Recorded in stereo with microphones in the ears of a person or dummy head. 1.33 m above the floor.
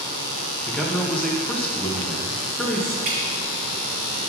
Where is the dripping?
40° right (ahead or behind), 2 m.